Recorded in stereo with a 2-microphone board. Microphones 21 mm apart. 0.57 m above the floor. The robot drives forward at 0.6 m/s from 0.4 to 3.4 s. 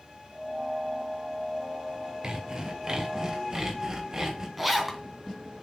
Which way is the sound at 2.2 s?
40° right (ahead or behind).